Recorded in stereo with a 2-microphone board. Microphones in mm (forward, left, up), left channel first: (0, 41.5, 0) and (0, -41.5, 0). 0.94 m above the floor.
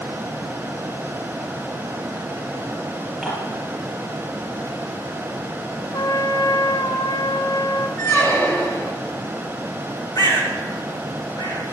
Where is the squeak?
30° left (ahead or behind), 1.3 m.